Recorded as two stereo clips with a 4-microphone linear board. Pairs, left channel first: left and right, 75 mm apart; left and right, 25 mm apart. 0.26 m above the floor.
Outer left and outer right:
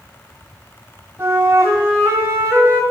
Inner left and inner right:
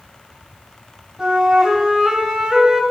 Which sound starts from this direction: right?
A flute, at 1.2 s.